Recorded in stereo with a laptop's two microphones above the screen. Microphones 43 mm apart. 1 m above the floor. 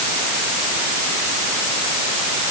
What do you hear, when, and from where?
Only background noise.